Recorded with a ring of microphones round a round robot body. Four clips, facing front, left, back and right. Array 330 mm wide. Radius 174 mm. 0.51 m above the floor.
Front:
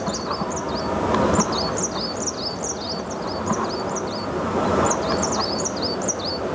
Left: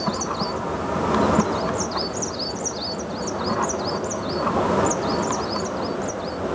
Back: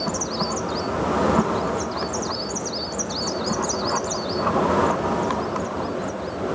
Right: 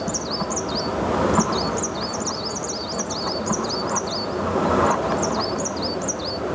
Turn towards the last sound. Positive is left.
No sound to turn to.